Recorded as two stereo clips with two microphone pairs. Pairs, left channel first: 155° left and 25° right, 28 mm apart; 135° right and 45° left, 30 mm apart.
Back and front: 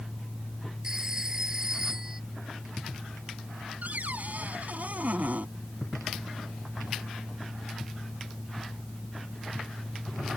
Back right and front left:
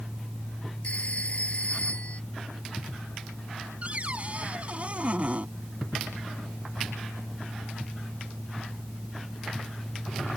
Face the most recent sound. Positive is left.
turn(degrees=0)